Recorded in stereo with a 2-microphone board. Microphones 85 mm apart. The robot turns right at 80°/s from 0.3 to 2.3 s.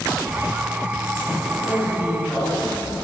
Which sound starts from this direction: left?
A man speaking, at 1.6 s.